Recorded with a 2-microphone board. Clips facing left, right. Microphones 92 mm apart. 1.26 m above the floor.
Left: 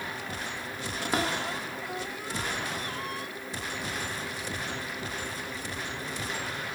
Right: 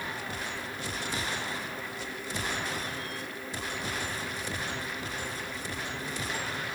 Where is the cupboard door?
85° left.